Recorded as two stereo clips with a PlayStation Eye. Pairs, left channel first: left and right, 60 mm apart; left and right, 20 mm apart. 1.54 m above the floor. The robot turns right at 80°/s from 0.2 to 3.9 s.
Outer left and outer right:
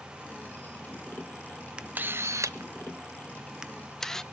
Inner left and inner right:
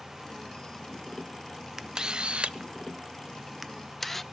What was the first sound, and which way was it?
A camera shutter, 15° right (ahead or behind).